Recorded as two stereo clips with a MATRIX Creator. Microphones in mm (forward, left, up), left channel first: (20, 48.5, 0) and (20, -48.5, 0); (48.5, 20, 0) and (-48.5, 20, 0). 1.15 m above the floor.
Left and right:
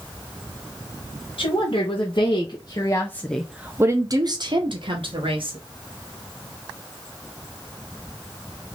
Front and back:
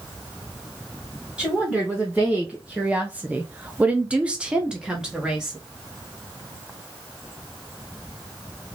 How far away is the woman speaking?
About 1.6 m.